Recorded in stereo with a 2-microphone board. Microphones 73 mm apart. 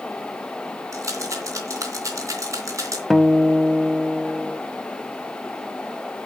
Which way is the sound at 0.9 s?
45° right (ahead or behind).